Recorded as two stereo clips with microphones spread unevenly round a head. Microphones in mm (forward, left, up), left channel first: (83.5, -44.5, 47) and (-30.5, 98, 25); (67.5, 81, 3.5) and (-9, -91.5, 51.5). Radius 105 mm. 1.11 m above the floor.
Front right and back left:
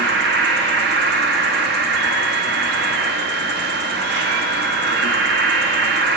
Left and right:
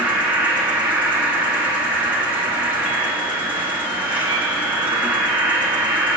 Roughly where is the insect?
Behind.